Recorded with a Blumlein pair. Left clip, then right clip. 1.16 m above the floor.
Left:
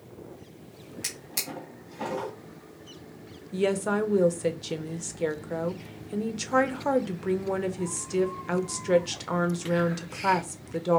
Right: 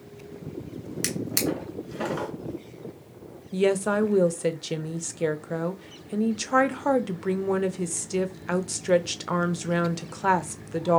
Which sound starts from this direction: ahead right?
A drawer, at 1.0 s.